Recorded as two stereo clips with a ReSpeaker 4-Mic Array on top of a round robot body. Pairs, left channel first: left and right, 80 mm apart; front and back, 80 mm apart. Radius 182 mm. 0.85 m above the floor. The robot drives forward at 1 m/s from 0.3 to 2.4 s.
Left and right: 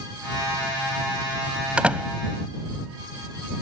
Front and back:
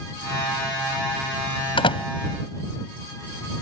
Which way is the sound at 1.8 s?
10° right.